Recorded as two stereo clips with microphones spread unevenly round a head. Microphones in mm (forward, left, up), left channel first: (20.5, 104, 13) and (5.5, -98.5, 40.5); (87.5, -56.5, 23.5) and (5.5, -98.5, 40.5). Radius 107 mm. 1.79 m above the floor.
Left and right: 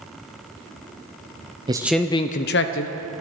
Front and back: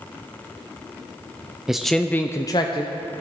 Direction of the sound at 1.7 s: 100° right.